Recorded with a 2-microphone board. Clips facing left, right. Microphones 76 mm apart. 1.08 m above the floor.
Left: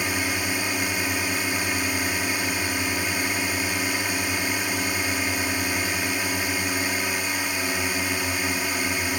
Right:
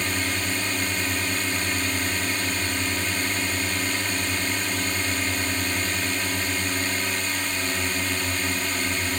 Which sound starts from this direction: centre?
A drone, at 0.0 s.